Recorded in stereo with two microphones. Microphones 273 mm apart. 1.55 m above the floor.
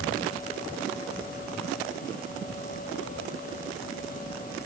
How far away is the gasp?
I don't hear a gasp.